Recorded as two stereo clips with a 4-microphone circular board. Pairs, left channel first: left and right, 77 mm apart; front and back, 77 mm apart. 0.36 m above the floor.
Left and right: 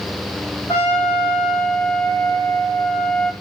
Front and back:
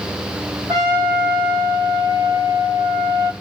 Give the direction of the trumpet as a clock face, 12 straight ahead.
7 o'clock.